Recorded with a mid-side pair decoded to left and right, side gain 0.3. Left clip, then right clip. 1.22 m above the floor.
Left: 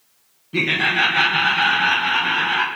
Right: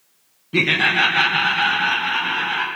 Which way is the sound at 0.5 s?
45° right.